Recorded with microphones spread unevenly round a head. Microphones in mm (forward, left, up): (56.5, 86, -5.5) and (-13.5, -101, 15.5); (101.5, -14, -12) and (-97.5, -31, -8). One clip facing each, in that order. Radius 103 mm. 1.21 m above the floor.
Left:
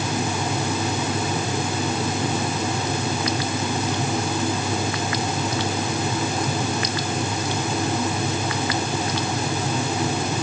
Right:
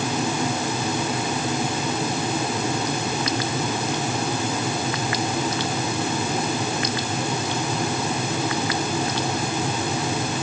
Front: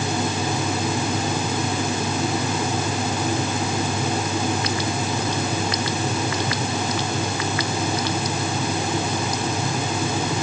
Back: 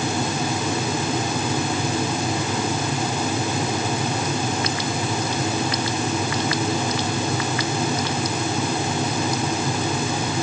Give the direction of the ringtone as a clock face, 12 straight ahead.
No ringtone in this recording.